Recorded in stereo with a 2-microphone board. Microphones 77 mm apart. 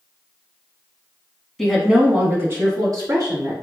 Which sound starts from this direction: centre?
A woman speaking, at 1.6 s.